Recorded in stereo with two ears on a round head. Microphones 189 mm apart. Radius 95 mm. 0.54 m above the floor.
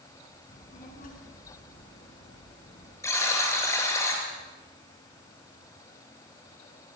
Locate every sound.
0.5 s a child speaking: 40° left (ahead or behind), 4.5 m
3.0 s a buzzer: 15° left (ahead or behind), 5 m